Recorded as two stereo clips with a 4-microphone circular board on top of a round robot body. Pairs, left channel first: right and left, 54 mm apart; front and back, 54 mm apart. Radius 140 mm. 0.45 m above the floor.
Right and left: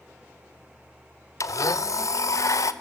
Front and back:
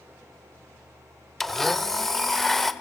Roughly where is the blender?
Right.